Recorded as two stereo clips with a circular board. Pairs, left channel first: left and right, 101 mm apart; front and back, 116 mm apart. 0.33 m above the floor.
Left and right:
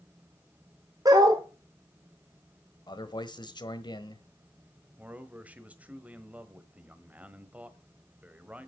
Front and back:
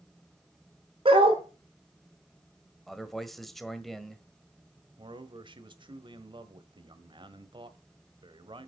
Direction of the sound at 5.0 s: 160° right.